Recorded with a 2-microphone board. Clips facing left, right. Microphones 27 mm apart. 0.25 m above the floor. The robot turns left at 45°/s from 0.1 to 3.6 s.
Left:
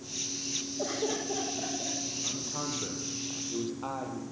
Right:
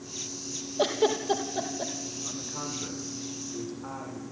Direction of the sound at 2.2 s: 170° left.